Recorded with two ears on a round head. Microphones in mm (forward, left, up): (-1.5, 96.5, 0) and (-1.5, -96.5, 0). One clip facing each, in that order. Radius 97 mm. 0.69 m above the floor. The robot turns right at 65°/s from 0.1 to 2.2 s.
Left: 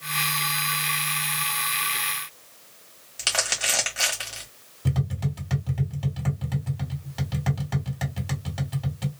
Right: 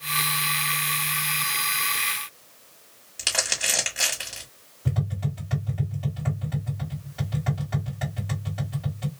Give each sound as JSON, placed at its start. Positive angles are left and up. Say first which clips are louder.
{"t": 3.2, "sound": "crumpling", "louder": "left 1 dB", "side_deg": -5, "distance_m": 1.8}
{"t": 4.8, "sound": "tapping", "louder": "left 1 dB", "side_deg": 60, "distance_m": 1.9}